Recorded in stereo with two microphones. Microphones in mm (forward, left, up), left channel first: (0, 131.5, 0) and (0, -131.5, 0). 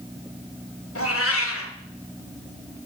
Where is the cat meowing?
60° left (ahead or behind), 1.1 m.